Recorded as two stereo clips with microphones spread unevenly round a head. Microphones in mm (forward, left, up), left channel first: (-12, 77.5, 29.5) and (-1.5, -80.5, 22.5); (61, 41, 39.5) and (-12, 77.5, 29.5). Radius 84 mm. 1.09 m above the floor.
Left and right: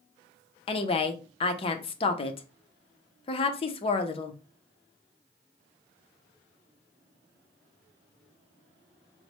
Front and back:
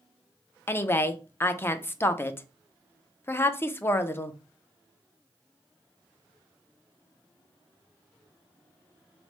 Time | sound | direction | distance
0.7 | a woman speaking | 40° left | 0.5 m